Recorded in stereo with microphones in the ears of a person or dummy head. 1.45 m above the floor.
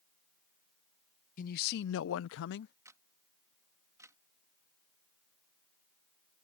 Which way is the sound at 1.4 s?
50° left (ahead or behind).